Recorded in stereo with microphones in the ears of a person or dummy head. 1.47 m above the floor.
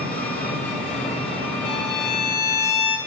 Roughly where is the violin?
Left.